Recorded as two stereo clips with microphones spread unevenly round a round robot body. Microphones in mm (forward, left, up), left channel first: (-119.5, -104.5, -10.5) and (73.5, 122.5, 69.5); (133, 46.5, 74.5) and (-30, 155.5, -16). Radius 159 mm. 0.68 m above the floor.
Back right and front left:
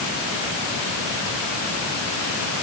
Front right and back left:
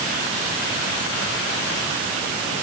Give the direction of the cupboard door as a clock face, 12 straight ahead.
No cupboard door in this recording.